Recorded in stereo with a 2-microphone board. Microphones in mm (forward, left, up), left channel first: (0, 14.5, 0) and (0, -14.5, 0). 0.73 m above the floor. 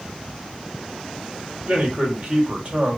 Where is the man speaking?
45° right (ahead or behind), 1.9 m.